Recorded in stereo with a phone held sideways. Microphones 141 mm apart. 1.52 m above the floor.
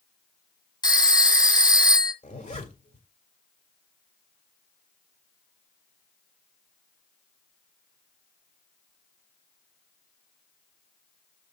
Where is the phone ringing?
25° left (ahead or behind), 1.2 m.